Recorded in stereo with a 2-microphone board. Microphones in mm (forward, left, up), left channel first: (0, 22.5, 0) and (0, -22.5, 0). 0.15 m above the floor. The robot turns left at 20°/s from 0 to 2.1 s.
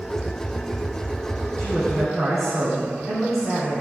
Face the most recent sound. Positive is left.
turn(degrees=15)  # may be behind; listen again after turning